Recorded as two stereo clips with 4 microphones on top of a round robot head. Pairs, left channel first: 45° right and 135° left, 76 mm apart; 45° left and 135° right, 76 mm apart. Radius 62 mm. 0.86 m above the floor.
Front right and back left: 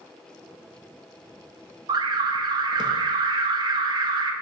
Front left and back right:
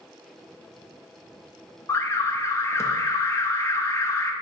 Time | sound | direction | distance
1.9 | an alarm | 100° left | 0.5 m